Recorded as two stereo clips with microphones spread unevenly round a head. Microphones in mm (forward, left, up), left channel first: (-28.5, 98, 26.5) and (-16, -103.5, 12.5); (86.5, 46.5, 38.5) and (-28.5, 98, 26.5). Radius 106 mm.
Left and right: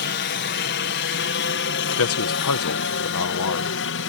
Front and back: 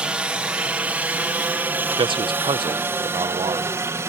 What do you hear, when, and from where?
0.0 s a helicopter: 80° left; by 4.1 s 95° left
2.0 s a man speaking: 110° left